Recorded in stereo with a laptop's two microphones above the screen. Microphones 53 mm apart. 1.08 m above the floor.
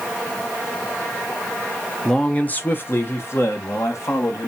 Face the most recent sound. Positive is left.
turn(degrees=70)  # may be behind; listen again after turning